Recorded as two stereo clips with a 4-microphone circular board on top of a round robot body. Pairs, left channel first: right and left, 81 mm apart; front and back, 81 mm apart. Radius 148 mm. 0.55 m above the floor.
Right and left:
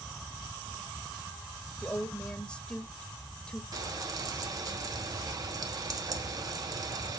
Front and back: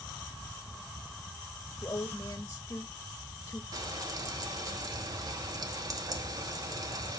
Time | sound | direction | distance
1.8 | a woman speaking | 25° right | 1.3 m
3.7 | frying | 135° left | 1.2 m